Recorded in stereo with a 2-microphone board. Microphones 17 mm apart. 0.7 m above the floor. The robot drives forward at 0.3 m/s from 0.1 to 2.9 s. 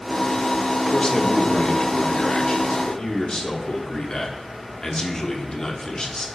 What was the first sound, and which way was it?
A man speaking, 55° left (ahead or behind).